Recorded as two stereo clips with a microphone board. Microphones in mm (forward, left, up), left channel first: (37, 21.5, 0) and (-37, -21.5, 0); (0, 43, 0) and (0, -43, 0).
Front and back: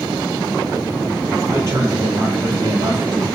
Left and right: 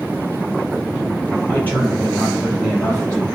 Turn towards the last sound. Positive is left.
turn(degrees=165)